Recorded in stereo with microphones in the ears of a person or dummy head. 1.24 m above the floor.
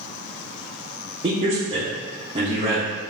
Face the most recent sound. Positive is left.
turn(degrees=-35)  # may be behind; listen again after turning